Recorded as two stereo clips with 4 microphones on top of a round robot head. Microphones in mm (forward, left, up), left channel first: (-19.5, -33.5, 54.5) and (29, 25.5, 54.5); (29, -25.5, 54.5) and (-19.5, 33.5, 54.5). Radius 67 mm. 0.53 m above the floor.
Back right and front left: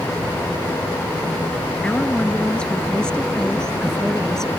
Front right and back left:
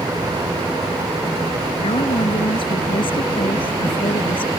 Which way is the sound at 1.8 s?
55° right.